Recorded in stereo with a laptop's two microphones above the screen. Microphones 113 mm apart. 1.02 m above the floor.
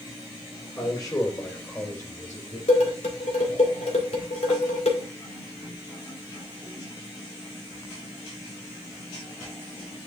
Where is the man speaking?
35° left (ahead or behind), 4.5 m; by 2.6 s 30° left (ahead or behind), 5 m.